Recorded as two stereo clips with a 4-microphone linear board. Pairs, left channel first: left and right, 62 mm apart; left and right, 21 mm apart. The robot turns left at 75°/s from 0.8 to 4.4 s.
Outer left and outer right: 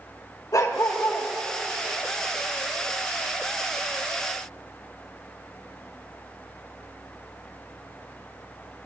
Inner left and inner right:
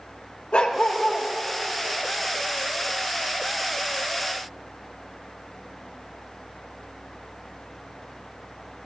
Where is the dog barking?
100° left, 2.5 m; by 1.3 s 65° left, 2.5 m.